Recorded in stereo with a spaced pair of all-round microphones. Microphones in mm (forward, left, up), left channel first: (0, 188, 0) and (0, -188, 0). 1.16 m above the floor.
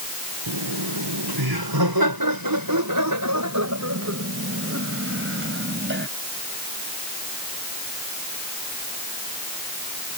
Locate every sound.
0.5 s laughter: 85° right; by 6.1 s 30° right (ahead or behind)